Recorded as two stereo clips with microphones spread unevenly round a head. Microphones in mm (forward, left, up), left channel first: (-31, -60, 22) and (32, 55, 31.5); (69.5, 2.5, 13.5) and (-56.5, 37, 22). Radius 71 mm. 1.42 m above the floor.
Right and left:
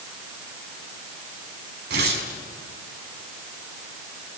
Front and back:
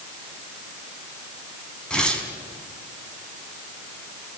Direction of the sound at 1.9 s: 70° left.